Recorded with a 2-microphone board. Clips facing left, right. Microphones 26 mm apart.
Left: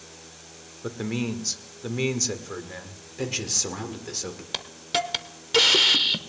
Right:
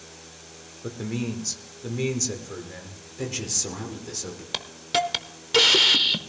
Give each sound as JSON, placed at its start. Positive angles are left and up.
{"t": 0.8, "sound": "a man speaking", "side_deg": 25, "distance_m": 1.1}
{"t": 3.2, "sound": "a man speaking", "side_deg": 25, "distance_m": 1.4}
{"t": 4.5, "sound": "a hiss", "side_deg": -5, "distance_m": 0.6}